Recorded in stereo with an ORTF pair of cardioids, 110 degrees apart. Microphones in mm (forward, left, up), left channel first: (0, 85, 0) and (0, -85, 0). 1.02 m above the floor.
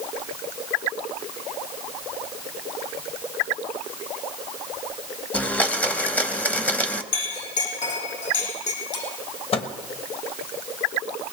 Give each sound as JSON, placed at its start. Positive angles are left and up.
{"t": 5.3, "sound": "a blender", "azimuth_deg": 10, "distance_m": 0.7}
{"t": 7.1, "sound": "a clink", "azimuth_deg": 50, "distance_m": 6.0}
{"t": 9.5, "sound": "a microwave", "azimuth_deg": 40, "distance_m": 1.2}